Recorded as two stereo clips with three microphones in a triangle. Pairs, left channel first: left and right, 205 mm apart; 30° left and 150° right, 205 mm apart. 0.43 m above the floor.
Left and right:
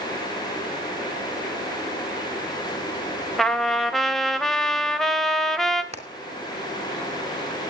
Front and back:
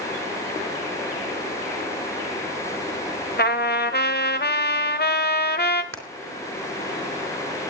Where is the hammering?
150° right, 3 m.